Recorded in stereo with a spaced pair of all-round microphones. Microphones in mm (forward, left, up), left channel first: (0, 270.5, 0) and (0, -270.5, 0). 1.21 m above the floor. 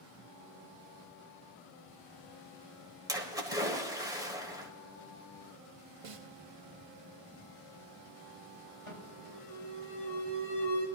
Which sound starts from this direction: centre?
A splash, at 3.1 s.